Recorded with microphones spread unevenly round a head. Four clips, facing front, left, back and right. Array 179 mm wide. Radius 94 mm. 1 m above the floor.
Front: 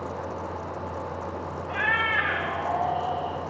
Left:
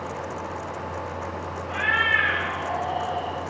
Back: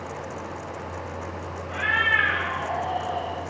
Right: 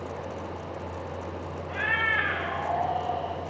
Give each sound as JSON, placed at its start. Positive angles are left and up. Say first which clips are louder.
{"t": 1.7, "sound": "a cat meowing", "louder": "left 4 dB, back 2 dB", "azimuth_deg": 30, "distance_m": 1.4}